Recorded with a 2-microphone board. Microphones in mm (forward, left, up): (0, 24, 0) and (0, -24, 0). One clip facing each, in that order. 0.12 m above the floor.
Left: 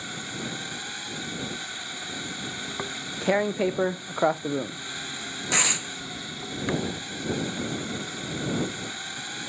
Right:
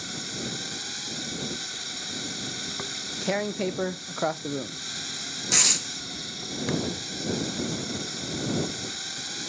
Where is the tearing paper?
15° left (ahead or behind).